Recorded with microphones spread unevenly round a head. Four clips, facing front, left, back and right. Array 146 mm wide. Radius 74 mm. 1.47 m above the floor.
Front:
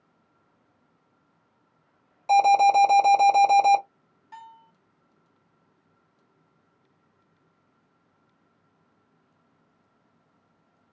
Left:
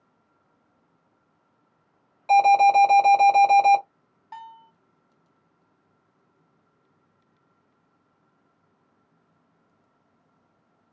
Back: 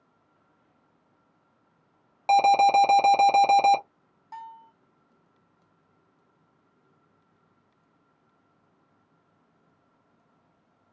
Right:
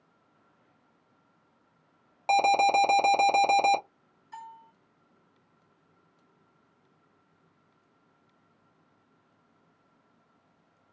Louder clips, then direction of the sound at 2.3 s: Left 7 dB, front 1 dB; 145° right.